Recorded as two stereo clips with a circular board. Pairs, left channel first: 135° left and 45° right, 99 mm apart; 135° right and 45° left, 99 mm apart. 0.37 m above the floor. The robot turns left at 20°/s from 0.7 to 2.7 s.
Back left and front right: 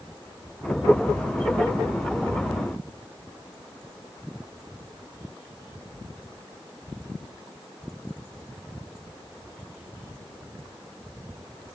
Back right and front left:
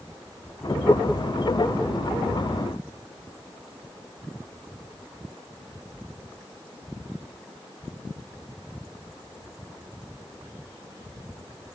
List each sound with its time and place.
Only background noise.